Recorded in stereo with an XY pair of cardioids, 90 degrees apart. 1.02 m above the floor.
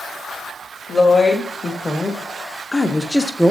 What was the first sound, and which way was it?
A woman speaking, 40° left.